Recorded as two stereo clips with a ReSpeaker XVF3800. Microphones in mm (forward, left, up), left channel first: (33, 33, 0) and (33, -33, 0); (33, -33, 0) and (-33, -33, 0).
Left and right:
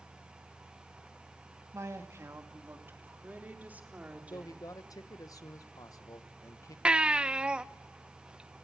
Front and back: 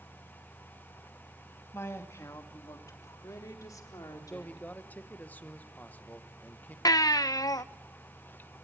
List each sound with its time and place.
1.7 s a woman speaking: 50° right, 2.5 m; by 4.7 s 20° right, 4.5 m
4.3 s a man speaking: 65° left, 1.0 m
6.8 s a baby crying: 15° right, 0.6 m